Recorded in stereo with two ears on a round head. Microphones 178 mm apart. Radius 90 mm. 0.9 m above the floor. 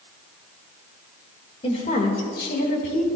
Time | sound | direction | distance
1.6 | a woman speaking | 35° left (ahead or behind) | 3 m